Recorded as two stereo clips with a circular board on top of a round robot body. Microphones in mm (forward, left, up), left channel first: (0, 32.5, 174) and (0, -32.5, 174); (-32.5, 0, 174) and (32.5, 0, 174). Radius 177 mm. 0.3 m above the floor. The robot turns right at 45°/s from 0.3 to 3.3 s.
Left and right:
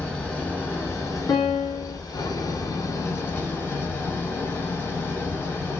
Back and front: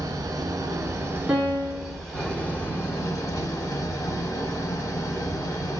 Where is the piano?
75° left, 3.5 m; by 2.0 s 105° left, 3.5 m.